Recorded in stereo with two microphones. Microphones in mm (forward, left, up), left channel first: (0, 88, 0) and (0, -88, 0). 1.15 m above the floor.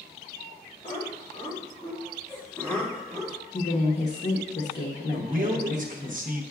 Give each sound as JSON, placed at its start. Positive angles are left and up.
{"t": 0.8, "sound": "laughter", "side_deg": 45, "distance_m": 3.0}
{"t": 3.5, "sound": "a woman speaking", "side_deg": 75, "distance_m": 0.8}
{"t": 5.1, "sound": "a man speaking", "side_deg": -50, "distance_m": 0.8}